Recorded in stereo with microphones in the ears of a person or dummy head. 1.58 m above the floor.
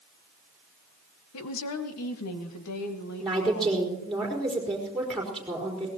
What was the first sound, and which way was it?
A woman speaking, 80° left.